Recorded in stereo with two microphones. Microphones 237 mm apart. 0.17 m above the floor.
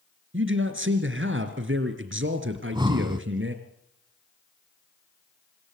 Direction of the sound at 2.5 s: 20° right (ahead or behind).